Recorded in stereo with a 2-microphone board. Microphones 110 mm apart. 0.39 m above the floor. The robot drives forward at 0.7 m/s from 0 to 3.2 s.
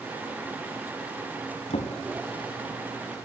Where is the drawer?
70° left (ahead or behind), 0.9 m; by 3.3 s 30° left (ahead or behind), 1.6 m.